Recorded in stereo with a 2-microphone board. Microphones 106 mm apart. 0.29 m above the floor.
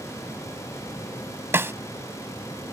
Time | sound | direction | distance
1.5 | a snare drum | 25° right (ahead or behind) | ?